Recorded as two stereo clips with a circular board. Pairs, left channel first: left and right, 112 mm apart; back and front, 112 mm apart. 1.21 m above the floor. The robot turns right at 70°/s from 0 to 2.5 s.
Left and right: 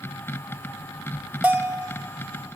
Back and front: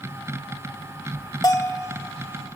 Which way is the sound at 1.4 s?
155° right.